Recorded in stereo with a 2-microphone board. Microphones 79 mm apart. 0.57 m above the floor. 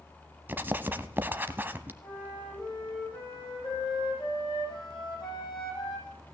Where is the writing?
25° right (ahead or behind), 0.8 m.